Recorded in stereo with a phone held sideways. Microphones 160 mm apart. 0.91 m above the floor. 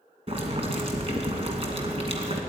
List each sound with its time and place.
0.3 s boiling: 40° right (ahead or behind), 2 m